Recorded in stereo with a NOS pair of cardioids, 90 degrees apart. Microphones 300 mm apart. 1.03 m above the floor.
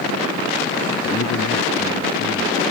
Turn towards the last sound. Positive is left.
turn(degrees=40)